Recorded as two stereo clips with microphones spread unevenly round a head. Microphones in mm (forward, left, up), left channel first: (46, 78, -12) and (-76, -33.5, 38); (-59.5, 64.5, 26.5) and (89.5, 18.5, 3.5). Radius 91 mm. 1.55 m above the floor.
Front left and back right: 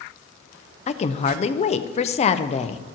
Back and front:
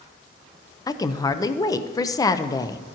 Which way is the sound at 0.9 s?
100° left.